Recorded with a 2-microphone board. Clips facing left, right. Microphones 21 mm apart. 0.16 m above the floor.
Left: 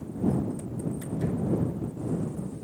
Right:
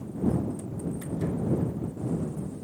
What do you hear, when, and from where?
Only background noise.